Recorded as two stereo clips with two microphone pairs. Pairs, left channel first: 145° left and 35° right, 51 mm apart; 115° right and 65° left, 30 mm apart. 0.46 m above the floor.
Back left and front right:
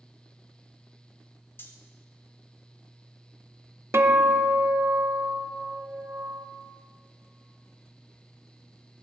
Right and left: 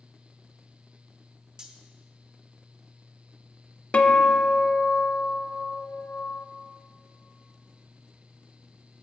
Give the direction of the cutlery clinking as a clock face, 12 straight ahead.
8 o'clock.